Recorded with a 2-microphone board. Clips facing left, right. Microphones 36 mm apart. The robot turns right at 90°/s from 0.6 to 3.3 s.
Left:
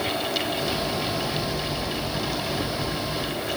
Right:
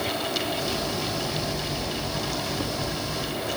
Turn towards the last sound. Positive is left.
No sound to turn to.